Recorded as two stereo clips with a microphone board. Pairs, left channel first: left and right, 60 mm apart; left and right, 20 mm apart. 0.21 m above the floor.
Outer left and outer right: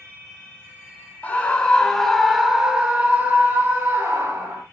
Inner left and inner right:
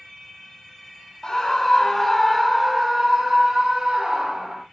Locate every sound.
1.2 s a scream: 25° left (ahead or behind), 1.6 m; by 4.6 s 50° right (ahead or behind), 2 m